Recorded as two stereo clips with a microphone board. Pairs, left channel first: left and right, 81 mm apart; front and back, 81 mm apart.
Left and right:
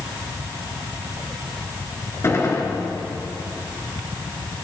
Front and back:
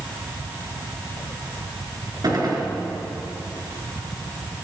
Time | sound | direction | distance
2.2 | a gunshot | 145° left | 4 m